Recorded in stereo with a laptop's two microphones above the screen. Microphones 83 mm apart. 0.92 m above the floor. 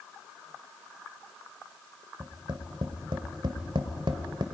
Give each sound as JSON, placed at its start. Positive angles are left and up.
{"t": 2.2, "sound": "tapping", "side_deg": -70, "distance_m": 1.8}